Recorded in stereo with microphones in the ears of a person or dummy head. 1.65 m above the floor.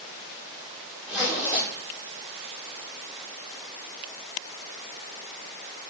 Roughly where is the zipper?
Centre.